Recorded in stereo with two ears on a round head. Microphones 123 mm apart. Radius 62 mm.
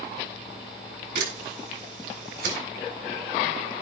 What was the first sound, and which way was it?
A camera shutter, 75° right (ahead or behind).